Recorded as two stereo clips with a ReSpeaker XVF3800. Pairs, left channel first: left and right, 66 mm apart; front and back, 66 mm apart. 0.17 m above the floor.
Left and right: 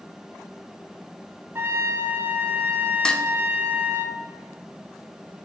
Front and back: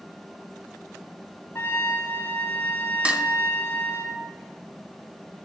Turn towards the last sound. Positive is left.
turn(degrees=145)